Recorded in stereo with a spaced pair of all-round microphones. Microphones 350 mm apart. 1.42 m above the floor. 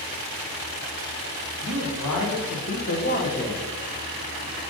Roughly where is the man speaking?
Left.